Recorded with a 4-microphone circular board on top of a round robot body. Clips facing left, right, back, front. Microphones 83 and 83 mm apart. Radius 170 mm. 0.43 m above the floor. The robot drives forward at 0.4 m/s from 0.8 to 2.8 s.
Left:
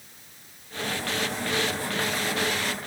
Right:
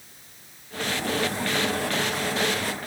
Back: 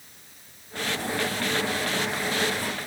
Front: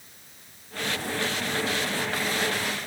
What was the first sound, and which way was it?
Only background noise.